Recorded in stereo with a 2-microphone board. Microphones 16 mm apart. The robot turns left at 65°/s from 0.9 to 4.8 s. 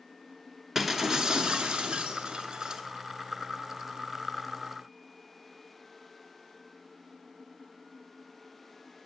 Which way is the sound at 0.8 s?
25° right.